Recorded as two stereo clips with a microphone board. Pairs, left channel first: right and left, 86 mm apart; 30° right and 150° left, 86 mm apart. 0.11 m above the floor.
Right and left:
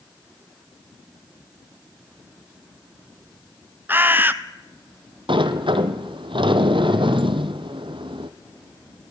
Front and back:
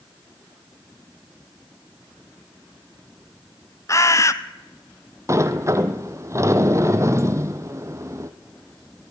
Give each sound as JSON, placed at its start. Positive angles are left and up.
{"t": 3.9, "sound": "a bird", "azimuth_deg": 25, "distance_m": 0.6}
{"t": 5.3, "sound": "a sliding door", "azimuth_deg": 95, "distance_m": 1.2}